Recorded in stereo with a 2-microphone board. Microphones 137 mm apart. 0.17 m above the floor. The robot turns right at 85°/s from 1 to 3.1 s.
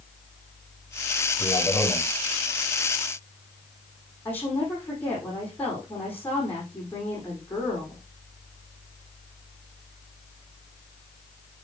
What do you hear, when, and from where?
1.4 s a man speaking: 125° left, 3.5 m; by 2.1 s straight behind, 3.5 m
4.2 s a woman speaking: 15° left (ahead or behind), 5.5 m